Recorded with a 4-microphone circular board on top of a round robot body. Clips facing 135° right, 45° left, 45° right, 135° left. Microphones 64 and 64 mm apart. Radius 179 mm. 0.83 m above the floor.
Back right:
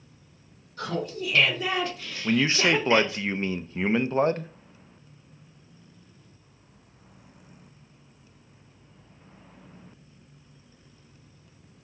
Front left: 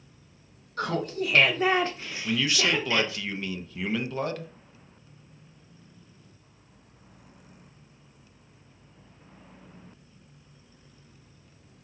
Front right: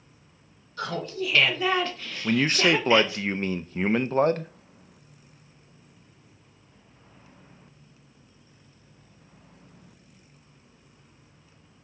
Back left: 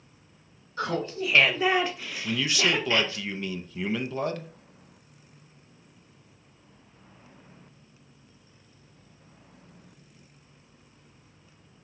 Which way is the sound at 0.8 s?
70° left.